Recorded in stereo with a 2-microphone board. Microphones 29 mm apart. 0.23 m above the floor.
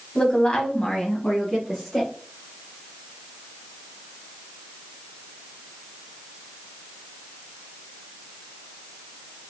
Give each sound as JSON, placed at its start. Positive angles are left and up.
{"t": 0.1, "sound": "a woman speaking", "side_deg": 35, "distance_m": 1.2}